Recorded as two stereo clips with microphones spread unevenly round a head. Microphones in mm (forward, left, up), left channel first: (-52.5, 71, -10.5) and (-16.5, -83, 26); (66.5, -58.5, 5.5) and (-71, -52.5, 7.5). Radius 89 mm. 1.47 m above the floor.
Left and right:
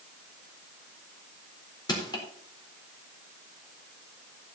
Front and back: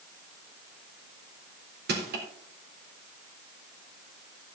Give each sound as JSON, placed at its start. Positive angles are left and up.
{"t": 1.9, "sound": "crushing", "azimuth_deg": 170, "distance_m": 3.5}